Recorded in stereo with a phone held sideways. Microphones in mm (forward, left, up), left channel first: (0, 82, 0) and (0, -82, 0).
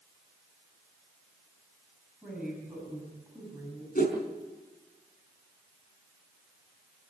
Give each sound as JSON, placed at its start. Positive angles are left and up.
{"t": 2.2, "sound": "a woman speaking", "side_deg": -10, "distance_m": 8.0}
{"t": 4.0, "sound": "a whoosh", "side_deg": 65, "distance_m": 5.5}